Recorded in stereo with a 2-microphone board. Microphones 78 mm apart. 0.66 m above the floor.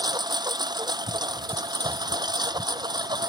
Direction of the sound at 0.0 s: 65° right (ahead or behind).